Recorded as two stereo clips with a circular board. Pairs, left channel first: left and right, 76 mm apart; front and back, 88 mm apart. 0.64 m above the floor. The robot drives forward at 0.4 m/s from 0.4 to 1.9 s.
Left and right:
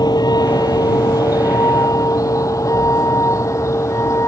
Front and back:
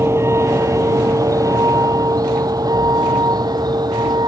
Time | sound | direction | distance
0.0 | a vehicle | 120° left | ?